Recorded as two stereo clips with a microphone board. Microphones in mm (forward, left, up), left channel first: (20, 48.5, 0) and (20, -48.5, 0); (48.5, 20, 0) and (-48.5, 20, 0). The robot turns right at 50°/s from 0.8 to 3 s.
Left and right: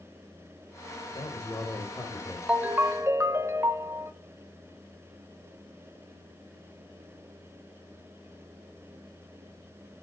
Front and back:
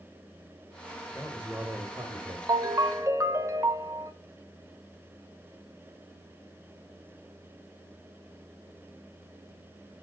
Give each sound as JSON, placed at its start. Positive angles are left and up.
{"t": 1.1, "sound": "a man speaking", "azimuth_deg": 90, "distance_m": 1.8}
{"t": 2.5, "sound": "a ringtone", "azimuth_deg": -165, "distance_m": 0.7}